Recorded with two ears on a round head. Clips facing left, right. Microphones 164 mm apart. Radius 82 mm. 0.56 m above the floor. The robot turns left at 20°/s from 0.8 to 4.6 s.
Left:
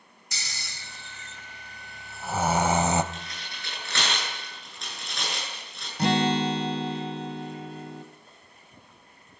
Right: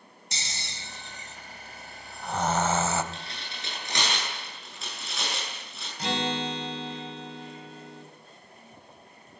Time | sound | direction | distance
0.3 | snoring | 25° right (ahead or behind) | 1.2 m
3.1 | tearing paper | 30° right (ahead or behind) | 10 m
6.0 | a guitar | 50° left (ahead or behind) | 1.7 m